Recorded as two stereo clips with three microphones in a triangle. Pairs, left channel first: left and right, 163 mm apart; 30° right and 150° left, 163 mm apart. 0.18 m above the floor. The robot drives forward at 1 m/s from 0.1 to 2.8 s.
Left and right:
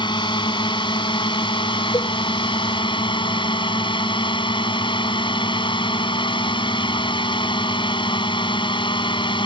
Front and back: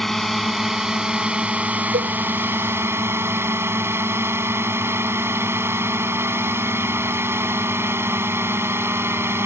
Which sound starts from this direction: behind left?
A cowbell, at 1.9 s.